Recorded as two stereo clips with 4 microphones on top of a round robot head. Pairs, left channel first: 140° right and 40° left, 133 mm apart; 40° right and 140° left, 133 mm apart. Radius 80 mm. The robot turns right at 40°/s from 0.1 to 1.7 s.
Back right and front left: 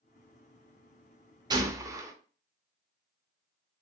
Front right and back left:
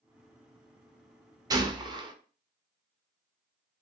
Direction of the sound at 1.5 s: 90° left.